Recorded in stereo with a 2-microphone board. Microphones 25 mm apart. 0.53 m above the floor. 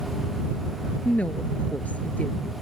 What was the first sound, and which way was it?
A woman speaking, 75° left (ahead or behind).